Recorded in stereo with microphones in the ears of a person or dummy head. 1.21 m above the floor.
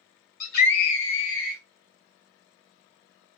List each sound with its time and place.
0.4 s a scream: 45° left (ahead or behind), 1.3 m; by 1.6 s 70° left (ahead or behind), 1.2 m